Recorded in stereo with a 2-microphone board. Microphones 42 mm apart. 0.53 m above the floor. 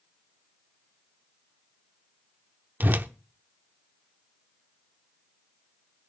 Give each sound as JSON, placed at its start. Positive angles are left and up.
{"t": 2.8, "sound": "a whoosh", "side_deg": -50, "distance_m": 0.7}